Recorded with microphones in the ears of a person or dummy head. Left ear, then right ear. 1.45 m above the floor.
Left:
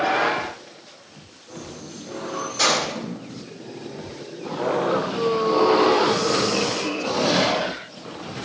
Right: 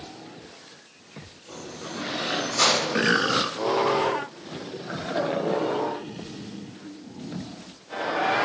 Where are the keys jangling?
60° right (ahead or behind), 1.0 m; by 2.9 s 35° right (ahead or behind), 1.4 m.